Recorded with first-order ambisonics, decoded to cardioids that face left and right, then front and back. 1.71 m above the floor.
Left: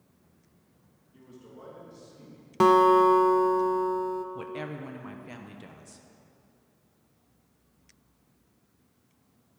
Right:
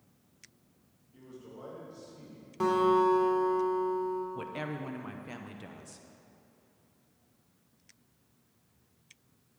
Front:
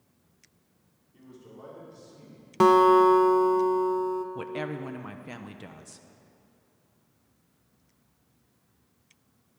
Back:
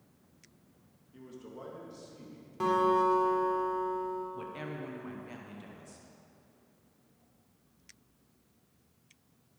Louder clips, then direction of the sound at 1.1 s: Right 1 dB, back 2 dB; 175° left.